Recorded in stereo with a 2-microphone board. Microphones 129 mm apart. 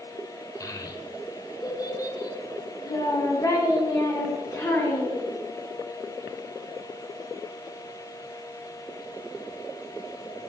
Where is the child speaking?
30° left (ahead or behind), 0.9 m; by 5.3 s 25° left (ahead or behind), 3 m.